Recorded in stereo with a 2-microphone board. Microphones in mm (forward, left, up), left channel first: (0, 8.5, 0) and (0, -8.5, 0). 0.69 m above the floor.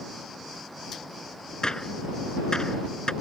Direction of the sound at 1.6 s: 45° left (ahead or behind).